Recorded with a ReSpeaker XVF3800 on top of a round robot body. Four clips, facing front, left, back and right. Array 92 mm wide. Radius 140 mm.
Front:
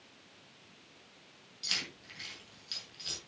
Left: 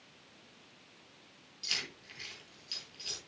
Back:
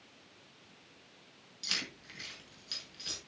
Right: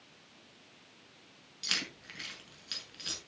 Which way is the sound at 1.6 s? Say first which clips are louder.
Right 3 dB, even; 100° right.